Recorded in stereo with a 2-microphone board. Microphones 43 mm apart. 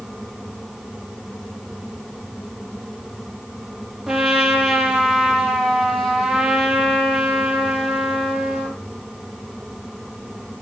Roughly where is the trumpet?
Centre.